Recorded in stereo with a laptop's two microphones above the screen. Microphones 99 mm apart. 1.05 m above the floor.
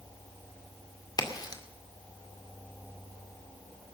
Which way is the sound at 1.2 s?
45° left (ahead or behind).